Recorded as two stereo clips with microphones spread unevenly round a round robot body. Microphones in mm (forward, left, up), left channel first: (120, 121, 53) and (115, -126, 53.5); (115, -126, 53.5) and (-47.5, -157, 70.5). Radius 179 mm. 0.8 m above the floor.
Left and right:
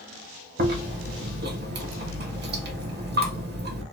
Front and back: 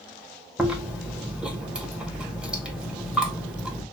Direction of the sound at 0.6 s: 80° right.